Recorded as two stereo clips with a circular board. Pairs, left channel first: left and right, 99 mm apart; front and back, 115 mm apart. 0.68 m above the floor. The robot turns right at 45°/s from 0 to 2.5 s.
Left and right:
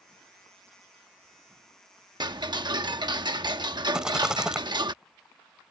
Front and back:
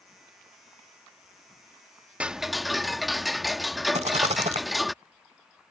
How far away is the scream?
I don't hear a scream.